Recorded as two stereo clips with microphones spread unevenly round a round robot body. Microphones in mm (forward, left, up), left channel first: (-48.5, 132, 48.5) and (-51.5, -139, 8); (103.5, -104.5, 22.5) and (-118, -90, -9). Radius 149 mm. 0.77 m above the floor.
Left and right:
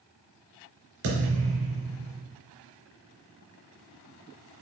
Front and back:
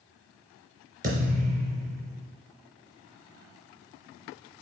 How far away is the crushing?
I don't hear crushing.